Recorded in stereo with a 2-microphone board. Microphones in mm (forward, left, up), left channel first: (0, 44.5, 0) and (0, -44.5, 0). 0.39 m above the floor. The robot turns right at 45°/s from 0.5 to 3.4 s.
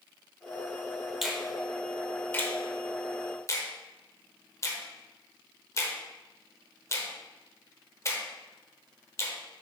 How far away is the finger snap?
About 1.0 m.